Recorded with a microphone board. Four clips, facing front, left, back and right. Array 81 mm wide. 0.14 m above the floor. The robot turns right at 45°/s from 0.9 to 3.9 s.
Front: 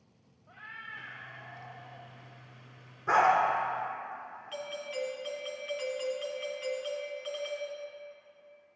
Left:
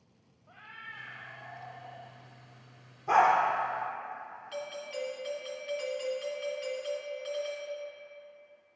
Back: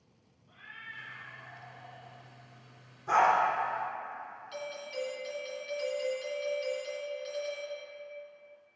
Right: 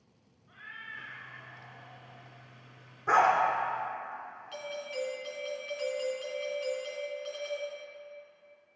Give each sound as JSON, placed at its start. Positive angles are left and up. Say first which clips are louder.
{"t": 0.5, "sound": "a cat meowing", "louder": "right 2 dB, front 3 dB", "azimuth_deg": 50, "distance_m": 1.1}
{"t": 3.1, "sound": "a dog barking", "louder": "even, front 1 dB", "azimuth_deg": -65, "distance_m": 2.5}
{"t": 4.5, "sound": "a doorbell", "louder": "right 1 dB, front 2 dB", "azimuth_deg": 0, "distance_m": 1.8}